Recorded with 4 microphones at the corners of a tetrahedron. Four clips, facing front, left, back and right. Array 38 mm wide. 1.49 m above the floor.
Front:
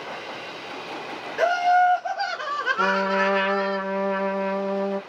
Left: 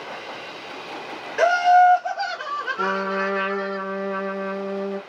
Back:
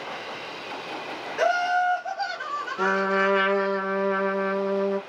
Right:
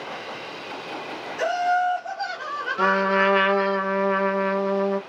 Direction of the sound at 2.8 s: 105° right.